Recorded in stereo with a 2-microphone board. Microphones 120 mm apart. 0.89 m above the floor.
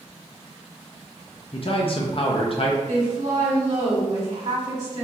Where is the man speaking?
50° left (ahead or behind), 0.5 m.